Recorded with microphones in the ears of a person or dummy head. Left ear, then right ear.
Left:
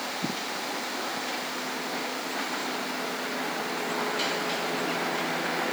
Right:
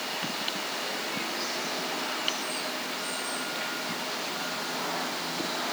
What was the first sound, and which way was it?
Only background noise.